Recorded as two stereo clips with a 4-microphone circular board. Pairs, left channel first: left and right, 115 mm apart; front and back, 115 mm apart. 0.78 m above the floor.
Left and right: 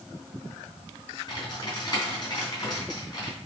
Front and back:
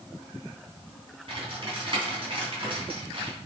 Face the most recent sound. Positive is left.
turn(degrees=140)